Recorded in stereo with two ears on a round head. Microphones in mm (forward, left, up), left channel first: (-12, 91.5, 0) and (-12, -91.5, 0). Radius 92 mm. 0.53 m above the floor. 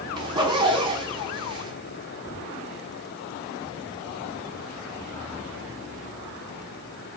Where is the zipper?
25° right (ahead or behind), 1.3 m.